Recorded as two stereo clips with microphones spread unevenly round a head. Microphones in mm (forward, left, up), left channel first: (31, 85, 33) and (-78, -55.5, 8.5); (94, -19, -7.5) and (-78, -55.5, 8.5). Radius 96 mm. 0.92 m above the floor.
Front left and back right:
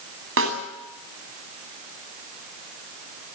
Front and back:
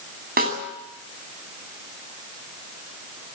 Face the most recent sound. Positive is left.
turn(degrees=-130)